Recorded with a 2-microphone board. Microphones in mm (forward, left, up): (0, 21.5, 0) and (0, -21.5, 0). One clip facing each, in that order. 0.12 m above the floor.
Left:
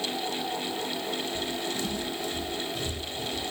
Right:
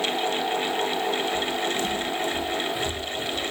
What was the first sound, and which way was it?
Footsteps, 35° right (ahead or behind).